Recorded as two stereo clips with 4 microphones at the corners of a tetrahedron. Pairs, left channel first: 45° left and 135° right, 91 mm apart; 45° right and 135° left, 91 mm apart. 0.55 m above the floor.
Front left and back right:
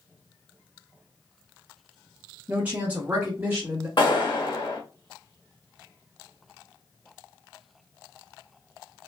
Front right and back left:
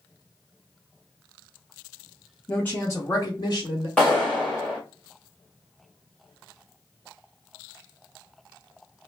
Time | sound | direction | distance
2.5 | a woman speaking | 100° right | 0.6 m
4.0 | a clap | 35° left | 1.2 m